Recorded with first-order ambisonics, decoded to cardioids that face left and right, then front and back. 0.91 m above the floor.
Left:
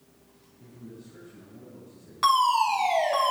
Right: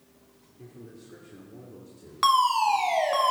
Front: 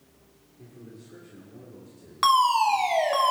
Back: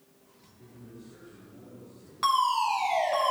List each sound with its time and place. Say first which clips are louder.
0.6 s a man speaking: even, front 3 dB; 65° right, 2 m
2.2 s a fire alarm: even, front 5 dB; 30° right, 1.9 m